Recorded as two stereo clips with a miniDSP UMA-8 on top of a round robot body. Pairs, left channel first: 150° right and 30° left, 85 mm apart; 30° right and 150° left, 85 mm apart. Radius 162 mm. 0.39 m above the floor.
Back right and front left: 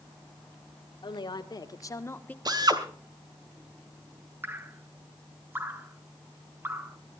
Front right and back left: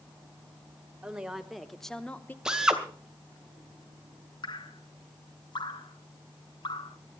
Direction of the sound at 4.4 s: 30° right.